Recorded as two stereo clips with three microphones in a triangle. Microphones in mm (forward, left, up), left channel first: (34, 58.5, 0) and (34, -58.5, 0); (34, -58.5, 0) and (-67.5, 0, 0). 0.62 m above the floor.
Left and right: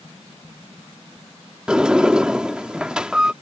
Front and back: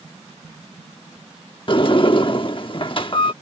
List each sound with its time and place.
1.7 s a sliding door: 10° right